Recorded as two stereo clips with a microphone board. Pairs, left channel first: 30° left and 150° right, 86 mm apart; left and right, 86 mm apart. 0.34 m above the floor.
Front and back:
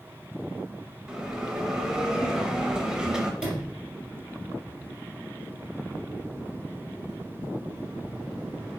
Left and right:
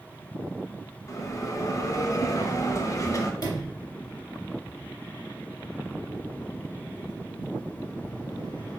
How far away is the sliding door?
About 2.5 m.